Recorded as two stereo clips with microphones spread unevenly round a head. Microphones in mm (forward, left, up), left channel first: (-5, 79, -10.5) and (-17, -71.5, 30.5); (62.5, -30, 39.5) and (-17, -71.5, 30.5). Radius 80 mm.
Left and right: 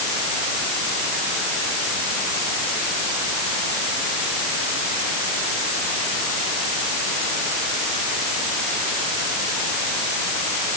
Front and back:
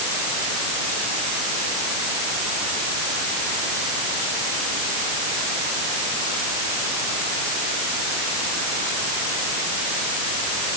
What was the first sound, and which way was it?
Only background noise.